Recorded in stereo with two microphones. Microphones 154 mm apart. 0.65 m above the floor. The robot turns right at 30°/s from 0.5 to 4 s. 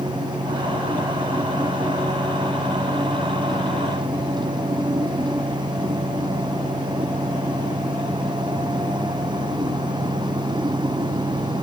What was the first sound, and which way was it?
Only background noise.